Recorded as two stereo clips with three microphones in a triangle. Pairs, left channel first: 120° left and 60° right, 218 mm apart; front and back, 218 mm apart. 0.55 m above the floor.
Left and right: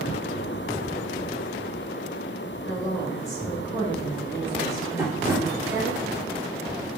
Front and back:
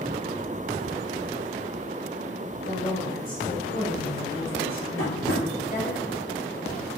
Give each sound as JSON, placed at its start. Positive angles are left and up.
{"t": 2.6, "sound": "a woman speaking", "azimuth_deg": 50, "distance_m": 2.0}
{"t": 5.0, "sound": "tapping", "azimuth_deg": 20, "distance_m": 1.7}